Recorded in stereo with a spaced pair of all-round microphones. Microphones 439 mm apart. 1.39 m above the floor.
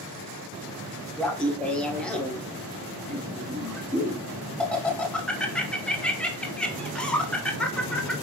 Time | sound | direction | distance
1.2 | laughter | 5° left (ahead or behind) | 0.6 m